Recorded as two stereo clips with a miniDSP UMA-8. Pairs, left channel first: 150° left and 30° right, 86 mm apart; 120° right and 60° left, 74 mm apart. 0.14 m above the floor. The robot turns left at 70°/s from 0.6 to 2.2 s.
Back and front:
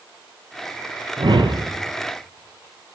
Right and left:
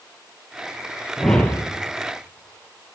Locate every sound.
1.2 s a whoosh: 30° right, 1.5 m; by 1.7 s 65° right, 1.5 m